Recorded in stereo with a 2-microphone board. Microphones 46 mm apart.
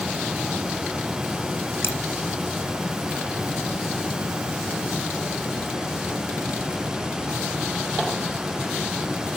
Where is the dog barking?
I don't hear a dog barking.